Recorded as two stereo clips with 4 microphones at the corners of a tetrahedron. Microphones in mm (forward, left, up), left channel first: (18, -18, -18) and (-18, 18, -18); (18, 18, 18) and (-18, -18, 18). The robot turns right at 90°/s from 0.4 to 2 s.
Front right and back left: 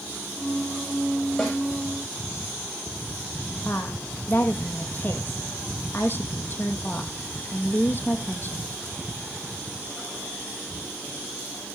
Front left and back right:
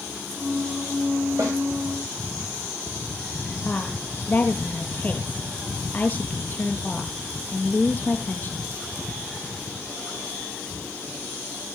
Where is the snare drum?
130° right, 8 m; by 1.6 s 115° right, 8 m.